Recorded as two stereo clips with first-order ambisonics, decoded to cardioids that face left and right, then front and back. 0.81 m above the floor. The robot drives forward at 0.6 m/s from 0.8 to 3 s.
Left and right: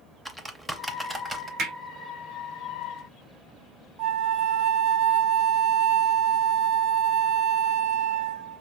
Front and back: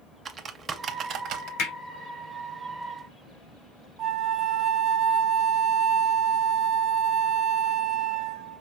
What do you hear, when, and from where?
0.2 s typing on a keyboard: straight behind, 0.6 m
1.6 s hammering: 30° right, 2 m; by 1.8 s 35° right, 2.0 m
4.0 s a flute: 125° right, 0.5 m